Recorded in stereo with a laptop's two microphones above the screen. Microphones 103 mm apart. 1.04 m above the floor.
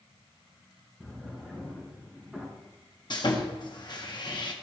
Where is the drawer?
Centre (ahead or behind), 4 m.